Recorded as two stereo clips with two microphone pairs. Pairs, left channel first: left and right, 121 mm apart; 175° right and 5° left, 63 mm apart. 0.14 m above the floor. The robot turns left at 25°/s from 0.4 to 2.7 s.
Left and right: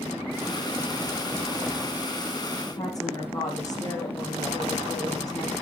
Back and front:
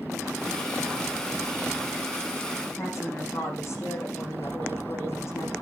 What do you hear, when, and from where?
2.8 s a woman speaking: 145° left, 8.5 m